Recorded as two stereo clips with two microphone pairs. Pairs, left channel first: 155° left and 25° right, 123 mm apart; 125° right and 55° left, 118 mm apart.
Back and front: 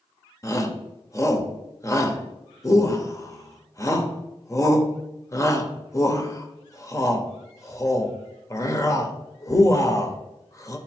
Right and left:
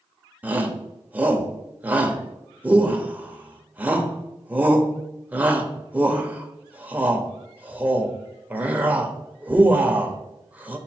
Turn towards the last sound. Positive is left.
turn(degrees=120)